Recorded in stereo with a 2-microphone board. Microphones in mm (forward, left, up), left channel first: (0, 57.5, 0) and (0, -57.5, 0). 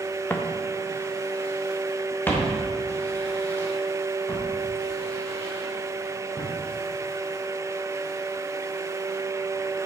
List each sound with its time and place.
0.3 s footsteps: 15° left (ahead or behind), 1.2 m